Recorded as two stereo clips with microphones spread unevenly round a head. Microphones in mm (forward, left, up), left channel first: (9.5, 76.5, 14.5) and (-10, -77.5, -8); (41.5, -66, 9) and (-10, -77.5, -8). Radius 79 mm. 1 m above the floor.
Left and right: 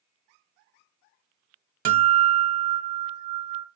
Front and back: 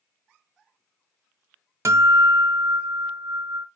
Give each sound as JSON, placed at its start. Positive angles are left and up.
{"t": 1.9, "sound": "a guitar", "azimuth_deg": -130, "distance_m": 1.0}